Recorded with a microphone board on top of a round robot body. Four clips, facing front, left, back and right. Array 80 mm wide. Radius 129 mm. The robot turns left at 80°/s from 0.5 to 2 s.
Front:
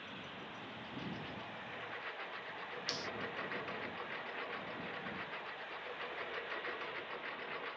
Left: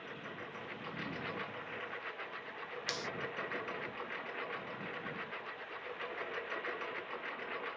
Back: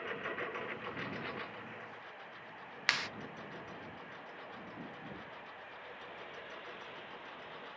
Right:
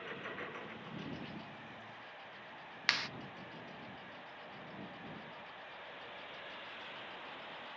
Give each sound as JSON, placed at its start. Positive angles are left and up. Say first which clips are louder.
{"t": 0.0, "sound": "a lawn mower", "louder": "right 2 dB, back 9 dB", "azimuth_deg": -170}
{"t": 2.9, "sound": "a clap", "louder": "right 5 dB, back 10 dB", "azimuth_deg": -150}